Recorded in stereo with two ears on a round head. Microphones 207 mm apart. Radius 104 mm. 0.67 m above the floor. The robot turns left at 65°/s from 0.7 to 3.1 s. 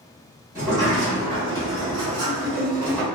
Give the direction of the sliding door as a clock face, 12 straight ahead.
1 o'clock.